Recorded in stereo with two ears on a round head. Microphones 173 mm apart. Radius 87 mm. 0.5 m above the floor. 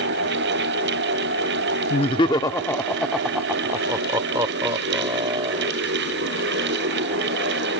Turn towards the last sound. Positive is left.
turn(degrees=-30)  # may be behind; listen again after turning